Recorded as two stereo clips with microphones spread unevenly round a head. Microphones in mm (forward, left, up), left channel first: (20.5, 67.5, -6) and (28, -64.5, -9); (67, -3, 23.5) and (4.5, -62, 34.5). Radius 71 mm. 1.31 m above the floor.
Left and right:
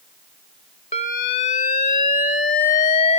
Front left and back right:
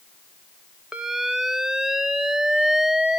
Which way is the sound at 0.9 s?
140° left.